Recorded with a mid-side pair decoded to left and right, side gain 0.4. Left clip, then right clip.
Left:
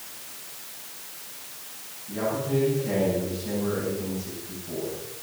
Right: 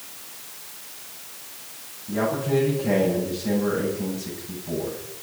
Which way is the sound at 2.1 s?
65° right.